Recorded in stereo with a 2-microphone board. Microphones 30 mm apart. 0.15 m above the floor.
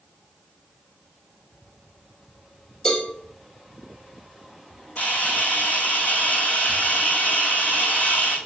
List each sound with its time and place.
2.9 s a cowbell: 20° left (ahead or behind), 3 m
5.0 s a camera shutter: 55° left (ahead or behind), 3 m